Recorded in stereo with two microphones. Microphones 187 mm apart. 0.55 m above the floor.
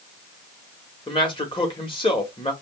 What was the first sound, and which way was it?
A man speaking, 25° left (ahead or behind).